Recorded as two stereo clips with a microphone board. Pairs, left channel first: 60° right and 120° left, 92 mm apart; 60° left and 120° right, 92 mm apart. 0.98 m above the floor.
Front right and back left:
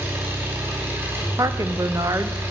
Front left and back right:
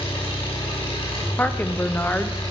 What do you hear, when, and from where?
0.0 s an engine running: 55° left, 6 m
1.4 s a woman speaking: 115° left, 0.9 m